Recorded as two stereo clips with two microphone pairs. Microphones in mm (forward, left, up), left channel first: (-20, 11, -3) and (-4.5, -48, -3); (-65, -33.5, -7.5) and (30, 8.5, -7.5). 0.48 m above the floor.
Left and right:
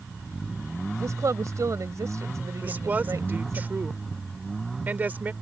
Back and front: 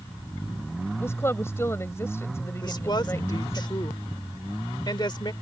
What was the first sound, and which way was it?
A woman speaking, 95° right.